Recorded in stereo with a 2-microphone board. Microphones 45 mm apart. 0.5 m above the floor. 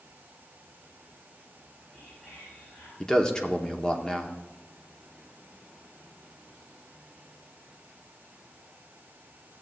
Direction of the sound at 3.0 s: 15° left (ahead or behind).